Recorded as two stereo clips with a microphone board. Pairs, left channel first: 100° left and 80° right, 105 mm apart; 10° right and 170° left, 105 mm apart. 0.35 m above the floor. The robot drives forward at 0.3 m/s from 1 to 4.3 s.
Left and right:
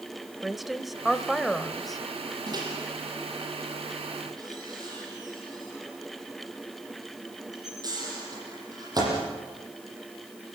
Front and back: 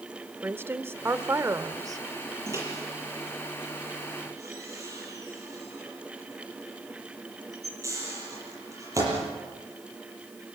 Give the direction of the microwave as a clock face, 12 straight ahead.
4 o'clock.